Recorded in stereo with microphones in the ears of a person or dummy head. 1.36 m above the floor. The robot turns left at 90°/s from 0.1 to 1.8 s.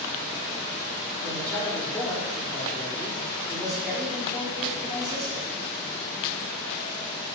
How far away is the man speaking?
About 1.6 m.